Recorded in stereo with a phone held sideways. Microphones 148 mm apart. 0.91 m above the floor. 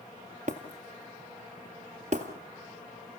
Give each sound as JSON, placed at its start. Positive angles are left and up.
{"t": 0.5, "sound": "breaking glass", "side_deg": -50, "distance_m": 2.0}